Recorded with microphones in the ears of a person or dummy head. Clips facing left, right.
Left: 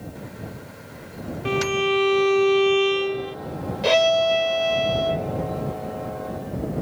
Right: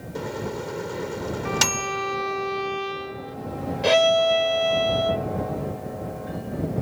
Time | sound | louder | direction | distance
0.1 | a microwave | right 8 dB | 80° right | ?
1.4 | a violin | left 6 dB | 55° left (ahead or behind) | ?
3.8 | a violin | even | 5° left (ahead or behind) | ?